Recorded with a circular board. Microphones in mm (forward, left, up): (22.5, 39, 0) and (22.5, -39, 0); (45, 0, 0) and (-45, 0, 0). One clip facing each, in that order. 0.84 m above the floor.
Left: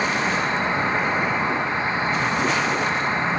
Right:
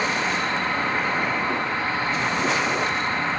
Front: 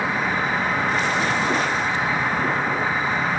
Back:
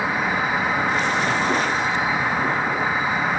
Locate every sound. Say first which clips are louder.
0.0 s an insect: left 2 dB, back 1 dB; 100° left, 0.9 m